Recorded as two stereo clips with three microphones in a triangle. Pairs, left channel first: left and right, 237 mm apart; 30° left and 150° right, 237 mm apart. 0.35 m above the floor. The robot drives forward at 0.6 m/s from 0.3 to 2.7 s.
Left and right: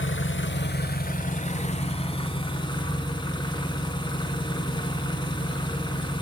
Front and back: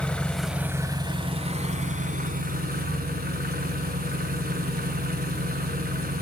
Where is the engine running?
115° left, 0.8 m; by 6.2 s 160° left, 1.9 m.